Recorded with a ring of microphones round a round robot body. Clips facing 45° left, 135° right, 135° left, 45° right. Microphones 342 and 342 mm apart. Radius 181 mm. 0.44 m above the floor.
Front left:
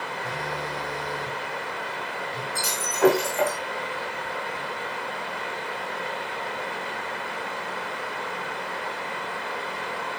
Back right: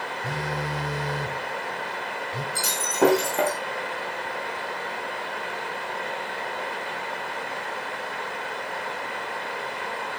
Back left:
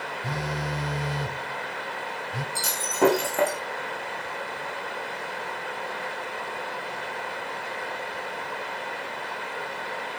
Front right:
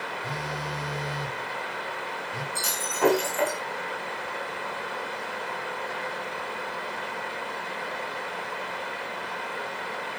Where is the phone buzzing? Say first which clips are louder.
Back right 3 dB, back left 5 dB; 155° left, 0.8 m.